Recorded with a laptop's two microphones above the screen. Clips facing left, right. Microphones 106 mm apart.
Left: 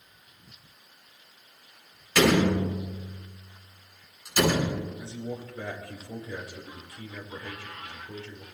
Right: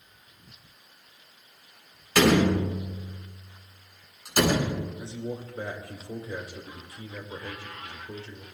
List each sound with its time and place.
2.1 s a door slam: 50° right (ahead or behind), 7 m
5.0 s a man speaking: 30° right (ahead or behind), 4.5 m